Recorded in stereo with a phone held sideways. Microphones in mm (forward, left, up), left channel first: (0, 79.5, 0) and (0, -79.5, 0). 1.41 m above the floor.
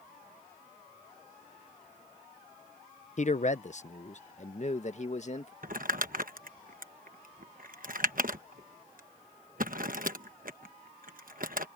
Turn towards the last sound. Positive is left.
turn(degrees=-70)  # may be behind; listen again after turning